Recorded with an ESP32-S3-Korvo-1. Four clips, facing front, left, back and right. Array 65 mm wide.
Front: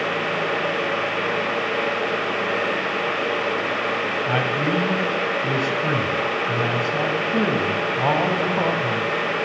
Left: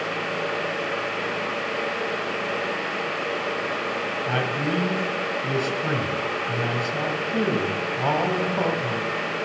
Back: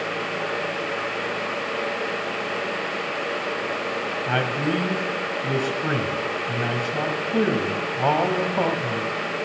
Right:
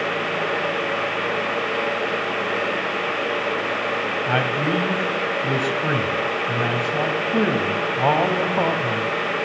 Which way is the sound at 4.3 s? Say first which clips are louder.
Right 4 dB, even; 105° right.